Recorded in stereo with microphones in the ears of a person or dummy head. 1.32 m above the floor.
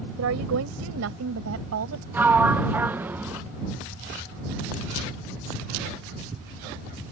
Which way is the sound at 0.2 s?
75° right (ahead or behind).